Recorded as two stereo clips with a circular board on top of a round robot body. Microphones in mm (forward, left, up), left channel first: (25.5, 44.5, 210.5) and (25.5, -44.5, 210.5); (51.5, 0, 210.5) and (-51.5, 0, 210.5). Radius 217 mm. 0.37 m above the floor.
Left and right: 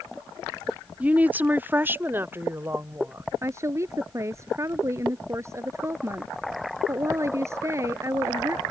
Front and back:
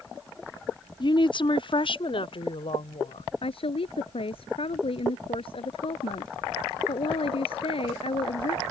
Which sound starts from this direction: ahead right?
A woman speaking, at 3.4 s.